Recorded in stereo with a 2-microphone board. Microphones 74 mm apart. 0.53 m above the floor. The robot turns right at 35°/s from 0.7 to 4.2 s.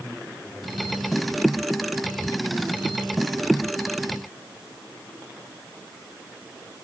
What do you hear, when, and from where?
Only background noise.